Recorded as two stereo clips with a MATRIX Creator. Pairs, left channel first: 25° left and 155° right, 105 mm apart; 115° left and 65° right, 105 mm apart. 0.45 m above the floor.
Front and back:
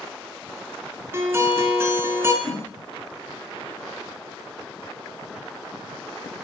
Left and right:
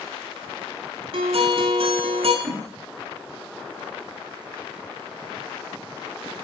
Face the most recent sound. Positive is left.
turn(degrees=-25)